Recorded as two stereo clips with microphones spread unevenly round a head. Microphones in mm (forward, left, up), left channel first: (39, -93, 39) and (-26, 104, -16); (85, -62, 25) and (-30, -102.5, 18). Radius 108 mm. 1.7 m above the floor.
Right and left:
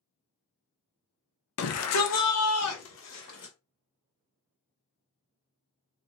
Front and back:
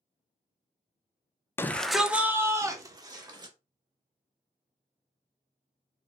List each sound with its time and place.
1.6 s a shout: 55° right, 0.5 m; by 3.5 s 105° right, 1.3 m